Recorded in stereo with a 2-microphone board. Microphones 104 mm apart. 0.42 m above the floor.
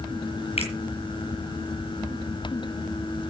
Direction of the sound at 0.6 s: 75° left (ahead or behind).